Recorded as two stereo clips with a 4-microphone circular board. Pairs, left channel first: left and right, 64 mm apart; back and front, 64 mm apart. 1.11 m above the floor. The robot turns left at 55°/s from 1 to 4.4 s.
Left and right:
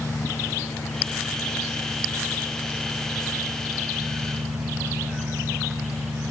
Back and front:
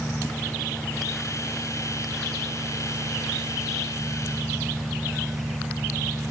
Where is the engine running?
115° left; by 6.3 s 75° right.